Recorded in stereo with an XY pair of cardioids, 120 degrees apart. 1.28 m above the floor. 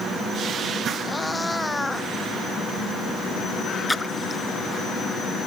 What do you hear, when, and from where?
1.0 s a cat meowing: 10° left
3.9 s a splash: 10° left